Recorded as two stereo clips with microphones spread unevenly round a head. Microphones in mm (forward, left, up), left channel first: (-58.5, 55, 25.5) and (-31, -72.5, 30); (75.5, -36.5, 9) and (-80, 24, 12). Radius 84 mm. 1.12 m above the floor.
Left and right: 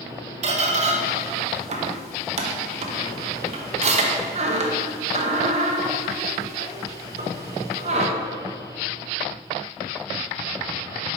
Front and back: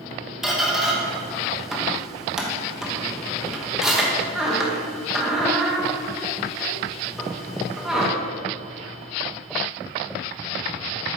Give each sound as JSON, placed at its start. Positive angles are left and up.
{"t": 0.4, "sound": "a squeak", "azimuth_deg": -115, "distance_m": 0.8}